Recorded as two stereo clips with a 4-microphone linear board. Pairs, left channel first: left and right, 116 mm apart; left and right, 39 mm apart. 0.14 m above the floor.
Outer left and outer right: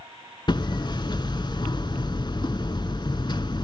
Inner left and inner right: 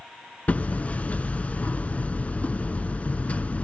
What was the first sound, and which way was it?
Hammering, 40° left (ahead or behind).